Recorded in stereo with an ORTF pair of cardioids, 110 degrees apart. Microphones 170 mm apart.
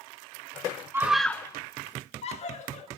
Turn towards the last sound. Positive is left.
turn(degrees=50)